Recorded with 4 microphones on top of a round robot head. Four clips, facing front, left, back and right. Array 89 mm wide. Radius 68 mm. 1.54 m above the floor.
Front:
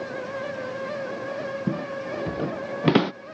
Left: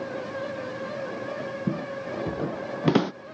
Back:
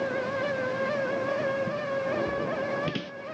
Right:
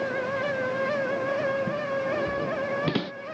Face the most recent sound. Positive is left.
turn(degrees=30)